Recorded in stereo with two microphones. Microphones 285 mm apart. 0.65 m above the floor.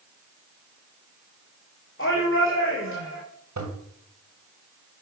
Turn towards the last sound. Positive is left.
turn(degrees=-80)